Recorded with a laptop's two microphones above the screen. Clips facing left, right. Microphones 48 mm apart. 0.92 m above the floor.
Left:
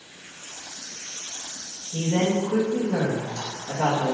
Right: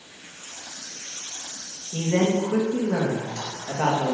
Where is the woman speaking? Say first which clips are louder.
Right 1 dB; 45° right (ahead or behind), 1.1 m.